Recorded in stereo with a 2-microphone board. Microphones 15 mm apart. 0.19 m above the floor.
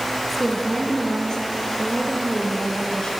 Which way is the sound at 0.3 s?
15° left (ahead or behind).